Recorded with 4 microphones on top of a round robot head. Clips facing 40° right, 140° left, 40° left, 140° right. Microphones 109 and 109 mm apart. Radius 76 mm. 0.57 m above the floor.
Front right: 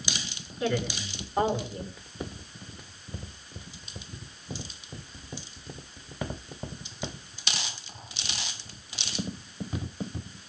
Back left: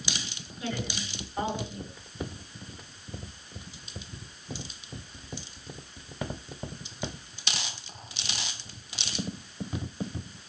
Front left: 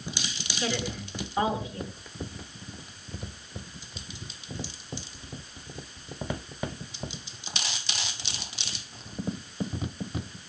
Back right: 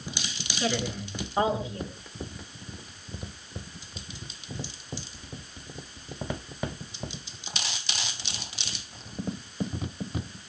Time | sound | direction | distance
0.6 | a woman speaking | 75° right | 7 m